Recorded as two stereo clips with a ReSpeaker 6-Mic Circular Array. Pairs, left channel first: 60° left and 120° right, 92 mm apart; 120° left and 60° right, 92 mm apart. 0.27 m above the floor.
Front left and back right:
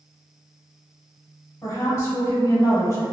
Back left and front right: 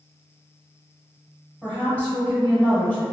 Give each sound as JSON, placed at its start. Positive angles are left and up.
{"t": 1.6, "sound": "a woman speaking", "azimuth_deg": 60, "distance_m": 1.0}